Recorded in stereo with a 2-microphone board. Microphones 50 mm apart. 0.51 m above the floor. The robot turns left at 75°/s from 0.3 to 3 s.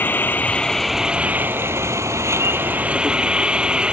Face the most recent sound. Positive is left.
turn(degrees=-160)